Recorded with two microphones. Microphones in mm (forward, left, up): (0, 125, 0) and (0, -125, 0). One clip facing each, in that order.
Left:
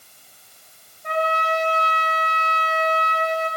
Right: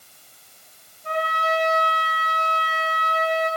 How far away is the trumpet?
About 6.5 m.